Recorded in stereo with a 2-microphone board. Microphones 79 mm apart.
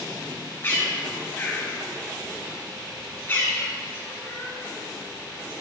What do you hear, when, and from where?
0.6 s a bird: 30° left (ahead or behind), 2.5 m